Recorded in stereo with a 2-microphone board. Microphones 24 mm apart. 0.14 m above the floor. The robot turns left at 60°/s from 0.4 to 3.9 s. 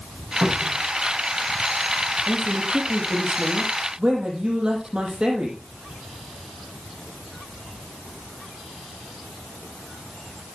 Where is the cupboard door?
15° right (ahead or behind), 8.5 m; by 0.9 s 40° right (ahead or behind), 8.5 m.